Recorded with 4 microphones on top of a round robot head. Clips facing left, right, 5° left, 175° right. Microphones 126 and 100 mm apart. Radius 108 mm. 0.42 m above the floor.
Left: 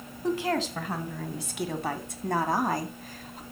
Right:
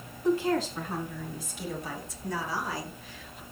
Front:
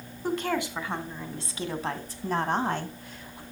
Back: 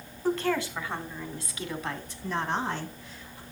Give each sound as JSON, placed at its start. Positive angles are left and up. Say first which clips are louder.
{"t": 0.2, "sound": "a woman speaking", "louder": "right 2 dB, back 1 dB", "azimuth_deg": 85, "distance_m": 3.5}